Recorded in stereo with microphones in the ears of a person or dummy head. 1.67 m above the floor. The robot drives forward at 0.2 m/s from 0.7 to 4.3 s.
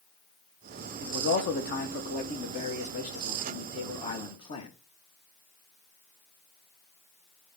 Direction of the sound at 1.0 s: 50° left (ahead or behind).